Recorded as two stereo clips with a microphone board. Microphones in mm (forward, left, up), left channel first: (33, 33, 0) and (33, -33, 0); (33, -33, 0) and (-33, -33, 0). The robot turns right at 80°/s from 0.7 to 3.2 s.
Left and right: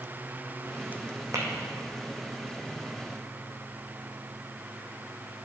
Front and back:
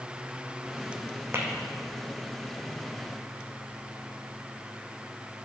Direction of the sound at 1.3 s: 125° right.